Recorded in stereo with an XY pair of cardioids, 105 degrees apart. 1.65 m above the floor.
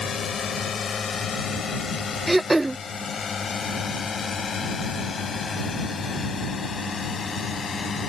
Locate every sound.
0.0 s a drone: 40° left; by 8.1 s 35° left
2.3 s throat clearing: 15° right